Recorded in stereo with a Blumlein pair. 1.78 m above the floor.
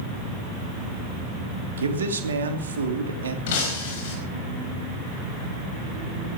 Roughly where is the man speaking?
Right.